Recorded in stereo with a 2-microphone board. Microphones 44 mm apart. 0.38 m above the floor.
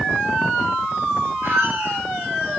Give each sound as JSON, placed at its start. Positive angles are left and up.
{"t": 1.4, "sound": "a squeak", "side_deg": -85, "distance_m": 4.5}